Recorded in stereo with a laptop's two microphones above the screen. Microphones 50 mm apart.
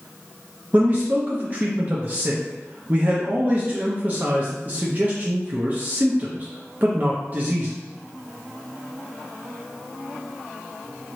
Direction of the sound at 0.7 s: 35° right (ahead or behind).